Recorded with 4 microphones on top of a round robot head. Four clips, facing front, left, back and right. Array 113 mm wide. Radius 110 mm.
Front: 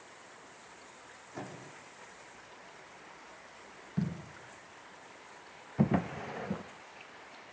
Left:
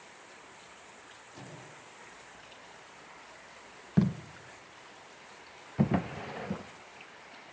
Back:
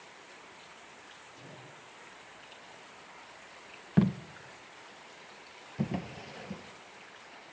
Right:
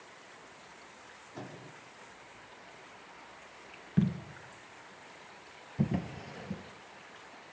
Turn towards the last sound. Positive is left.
turn(degrees=45)